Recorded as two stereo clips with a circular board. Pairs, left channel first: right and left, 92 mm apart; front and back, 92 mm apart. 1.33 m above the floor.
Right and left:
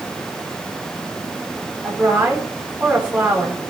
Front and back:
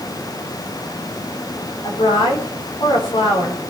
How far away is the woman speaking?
About 4 m.